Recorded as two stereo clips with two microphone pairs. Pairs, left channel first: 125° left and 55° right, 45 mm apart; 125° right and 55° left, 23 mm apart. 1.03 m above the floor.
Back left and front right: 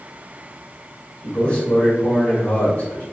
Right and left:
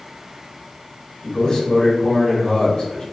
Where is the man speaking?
175° right, 1.4 m.